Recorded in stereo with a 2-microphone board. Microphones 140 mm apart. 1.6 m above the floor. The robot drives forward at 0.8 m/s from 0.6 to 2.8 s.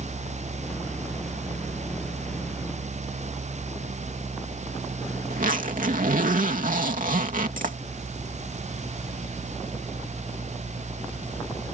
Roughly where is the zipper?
Right.